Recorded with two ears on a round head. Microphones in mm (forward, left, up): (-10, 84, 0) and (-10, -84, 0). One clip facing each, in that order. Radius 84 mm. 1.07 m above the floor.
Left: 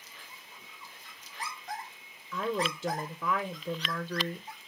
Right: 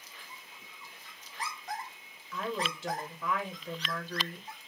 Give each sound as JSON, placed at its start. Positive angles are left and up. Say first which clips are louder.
{"t": 2.3, "sound": "a woman speaking", "louder": "left 4 dB", "side_deg": 70, "distance_m": 0.6}